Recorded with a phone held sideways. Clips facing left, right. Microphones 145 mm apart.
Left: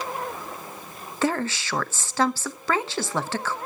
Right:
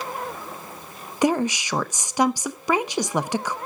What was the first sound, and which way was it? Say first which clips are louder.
A woman speaking: right 4 dB; 15° right (ahead or behind).